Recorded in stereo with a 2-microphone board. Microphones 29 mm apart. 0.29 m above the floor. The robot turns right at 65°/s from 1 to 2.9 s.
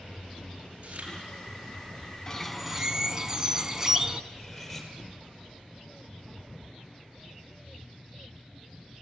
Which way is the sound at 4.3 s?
Centre (ahead or behind).